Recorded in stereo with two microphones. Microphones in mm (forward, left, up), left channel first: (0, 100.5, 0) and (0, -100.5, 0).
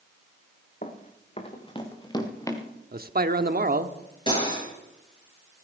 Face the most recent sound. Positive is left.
turn(degrees=25)  # may be behind; listen again after turning